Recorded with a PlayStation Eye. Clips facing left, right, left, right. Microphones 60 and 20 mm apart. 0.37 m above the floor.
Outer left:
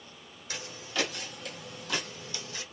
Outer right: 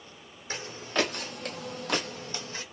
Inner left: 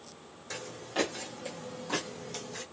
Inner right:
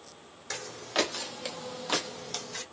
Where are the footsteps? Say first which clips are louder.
Outer right 5 dB, inner right 4 dB; 35° right (ahead or behind), 0.8 m.